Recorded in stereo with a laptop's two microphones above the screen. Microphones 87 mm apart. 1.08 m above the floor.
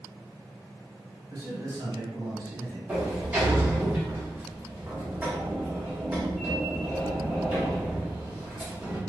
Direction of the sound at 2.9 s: 20° right (ahead or behind).